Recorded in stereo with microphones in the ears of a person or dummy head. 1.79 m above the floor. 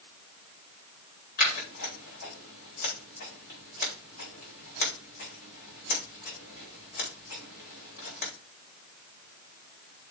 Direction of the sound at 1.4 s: 50° left (ahead or behind).